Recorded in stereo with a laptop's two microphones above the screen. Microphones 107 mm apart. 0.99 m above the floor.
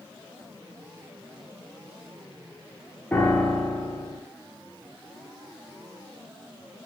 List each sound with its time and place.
3.1 s a piano: 20° left (ahead or behind), 2.5 m